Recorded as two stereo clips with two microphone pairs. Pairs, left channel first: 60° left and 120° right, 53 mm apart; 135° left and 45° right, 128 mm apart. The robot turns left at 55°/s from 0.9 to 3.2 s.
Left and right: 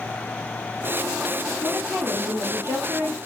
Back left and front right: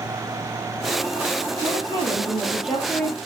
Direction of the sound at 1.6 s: 75° right.